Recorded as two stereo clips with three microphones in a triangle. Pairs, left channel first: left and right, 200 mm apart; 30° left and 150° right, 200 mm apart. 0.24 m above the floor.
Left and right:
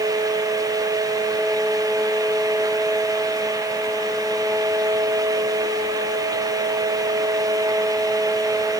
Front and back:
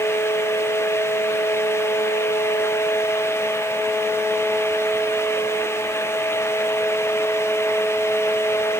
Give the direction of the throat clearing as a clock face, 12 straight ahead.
I don't hear throat clearing.